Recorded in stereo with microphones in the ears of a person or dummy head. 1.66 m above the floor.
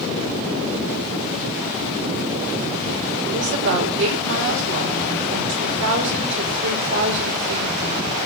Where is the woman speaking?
70° right (ahead or behind), 5 m.